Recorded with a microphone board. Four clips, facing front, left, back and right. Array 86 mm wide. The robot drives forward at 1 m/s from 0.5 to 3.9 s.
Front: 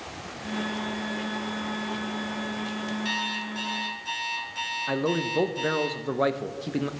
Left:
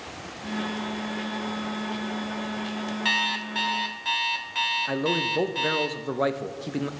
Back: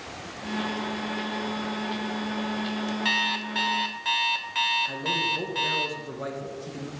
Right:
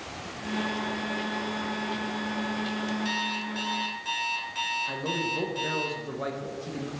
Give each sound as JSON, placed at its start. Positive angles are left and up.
{"t": 3.0, "sound": "an alarm clock", "azimuth_deg": 125, "distance_m": 0.8}
{"t": 4.9, "sound": "a man speaking", "azimuth_deg": 35, "distance_m": 0.6}